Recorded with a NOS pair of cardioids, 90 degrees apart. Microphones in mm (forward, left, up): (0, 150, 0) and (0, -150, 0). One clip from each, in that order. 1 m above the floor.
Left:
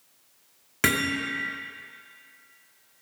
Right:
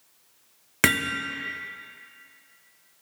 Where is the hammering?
35° right, 1.5 m.